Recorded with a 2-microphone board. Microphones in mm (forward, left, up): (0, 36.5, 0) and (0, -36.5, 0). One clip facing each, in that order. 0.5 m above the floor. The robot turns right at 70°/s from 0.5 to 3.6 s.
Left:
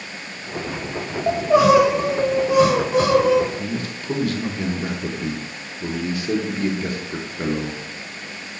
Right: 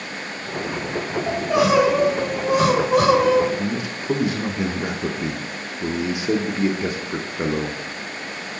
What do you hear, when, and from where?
1.3 s crying: 130° left, 2.5 m; by 3.5 s 75° right, 2.5 m
3.6 s a man speaking: 20° right (ahead or behind), 0.7 m